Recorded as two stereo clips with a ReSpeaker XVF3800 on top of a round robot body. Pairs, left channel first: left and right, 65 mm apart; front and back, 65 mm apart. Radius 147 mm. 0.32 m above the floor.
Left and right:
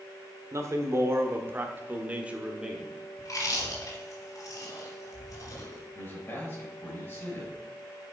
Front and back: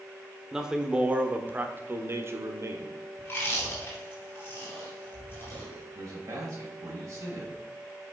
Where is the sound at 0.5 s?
100° right, 1.5 m; by 2.9 s 170° right, 1.5 m.